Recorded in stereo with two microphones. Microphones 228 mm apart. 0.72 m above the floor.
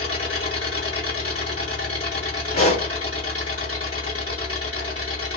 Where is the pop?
80° left, 3 m.